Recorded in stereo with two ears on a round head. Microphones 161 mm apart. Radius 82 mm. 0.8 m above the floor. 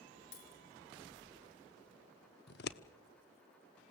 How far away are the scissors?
About 1.1 m.